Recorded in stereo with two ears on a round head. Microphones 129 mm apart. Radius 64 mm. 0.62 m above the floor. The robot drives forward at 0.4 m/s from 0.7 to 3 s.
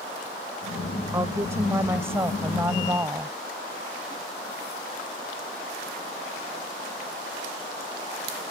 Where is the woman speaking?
20° right (ahead or behind); by 3.4 s 15° right (ahead or behind).